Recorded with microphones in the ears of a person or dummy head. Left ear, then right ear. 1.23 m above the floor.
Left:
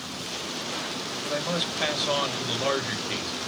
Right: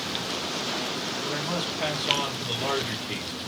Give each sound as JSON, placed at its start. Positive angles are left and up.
{"t": 1.2, "sound": "a man speaking", "side_deg": 45, "distance_m": 3.0}